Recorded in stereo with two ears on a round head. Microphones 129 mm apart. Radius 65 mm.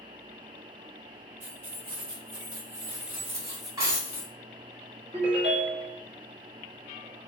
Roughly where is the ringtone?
Right.